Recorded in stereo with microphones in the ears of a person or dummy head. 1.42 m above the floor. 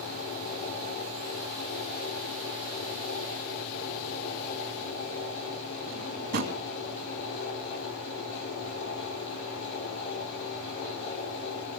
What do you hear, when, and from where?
0.0 s a fan: 80° left, 4.5 m
5.9 s a drawer: 60° right (ahead or behind), 3 m